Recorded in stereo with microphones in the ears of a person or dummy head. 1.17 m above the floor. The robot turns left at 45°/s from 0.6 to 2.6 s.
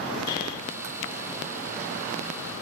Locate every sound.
0.3 s breathing: 20° left (ahead or behind), 3.5 m